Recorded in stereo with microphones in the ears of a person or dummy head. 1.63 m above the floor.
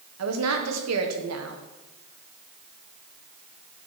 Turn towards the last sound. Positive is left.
turn(degrees=-80)